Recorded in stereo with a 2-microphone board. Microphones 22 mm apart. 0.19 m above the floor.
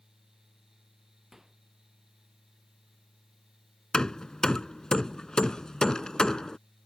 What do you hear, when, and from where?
1.3 s a microwave: 20° right (ahead or behind)
3.9 s hammering: 35° left (ahead or behind)